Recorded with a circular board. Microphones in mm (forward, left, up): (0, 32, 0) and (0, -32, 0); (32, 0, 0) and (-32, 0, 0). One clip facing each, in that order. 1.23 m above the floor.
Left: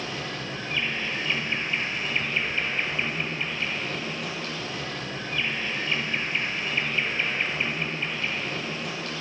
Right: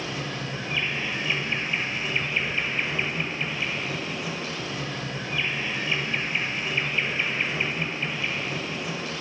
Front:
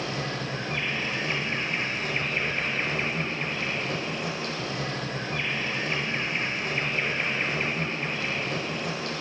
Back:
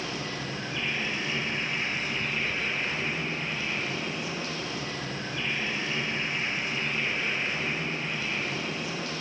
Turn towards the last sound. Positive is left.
turn(degrees=-10)